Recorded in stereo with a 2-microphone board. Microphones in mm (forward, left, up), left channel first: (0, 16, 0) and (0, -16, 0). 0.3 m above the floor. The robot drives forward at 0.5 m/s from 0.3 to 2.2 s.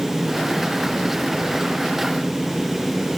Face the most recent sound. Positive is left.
No sound to turn to.